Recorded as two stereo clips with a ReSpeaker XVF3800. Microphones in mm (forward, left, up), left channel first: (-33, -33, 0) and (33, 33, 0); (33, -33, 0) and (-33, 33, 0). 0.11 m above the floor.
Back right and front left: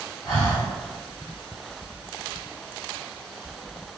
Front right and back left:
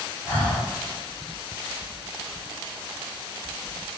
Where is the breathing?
110° right, 1.7 m.